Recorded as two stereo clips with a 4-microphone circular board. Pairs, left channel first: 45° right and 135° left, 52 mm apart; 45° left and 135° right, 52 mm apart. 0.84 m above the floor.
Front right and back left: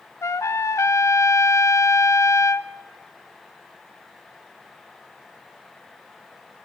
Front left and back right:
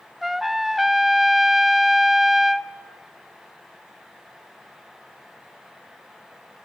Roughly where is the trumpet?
Ahead right.